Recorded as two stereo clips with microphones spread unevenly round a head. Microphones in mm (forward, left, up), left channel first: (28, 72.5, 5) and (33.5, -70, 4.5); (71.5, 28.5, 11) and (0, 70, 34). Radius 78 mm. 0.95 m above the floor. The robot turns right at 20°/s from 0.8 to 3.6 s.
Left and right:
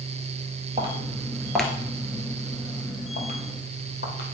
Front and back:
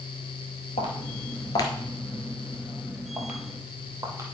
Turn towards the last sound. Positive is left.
turn(degrees=105)